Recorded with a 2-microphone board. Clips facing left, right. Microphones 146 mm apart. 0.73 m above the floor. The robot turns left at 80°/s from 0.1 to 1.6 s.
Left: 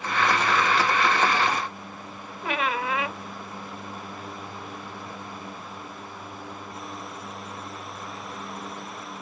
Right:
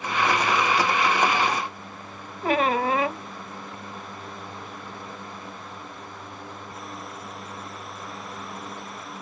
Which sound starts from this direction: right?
A squeak, at 2.4 s.